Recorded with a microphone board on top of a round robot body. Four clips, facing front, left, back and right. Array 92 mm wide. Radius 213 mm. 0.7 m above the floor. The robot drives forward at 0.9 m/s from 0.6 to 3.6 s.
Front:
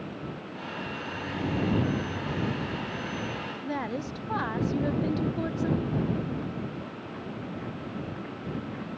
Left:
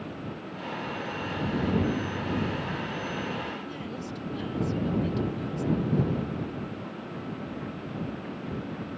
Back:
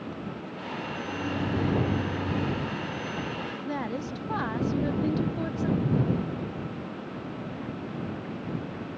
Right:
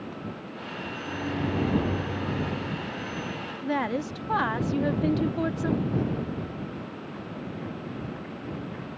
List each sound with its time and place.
1.1 s a microwave: 105° right; by 2.8 s 135° right
3.6 s a woman speaking: 90° right
5.8 s a whoosh: 150° right